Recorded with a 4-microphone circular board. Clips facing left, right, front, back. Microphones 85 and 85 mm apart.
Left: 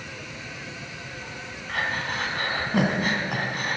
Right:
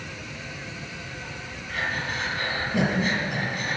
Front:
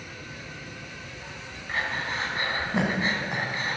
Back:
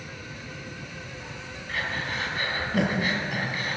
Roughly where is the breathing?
Ahead left.